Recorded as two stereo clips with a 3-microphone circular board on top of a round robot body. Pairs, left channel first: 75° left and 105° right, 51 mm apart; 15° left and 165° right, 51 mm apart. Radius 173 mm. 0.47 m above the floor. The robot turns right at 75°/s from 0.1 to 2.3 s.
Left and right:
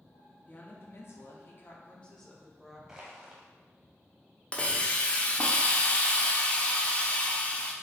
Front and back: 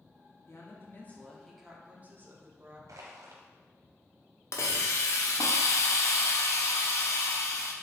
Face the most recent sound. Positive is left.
turn(degrees=10)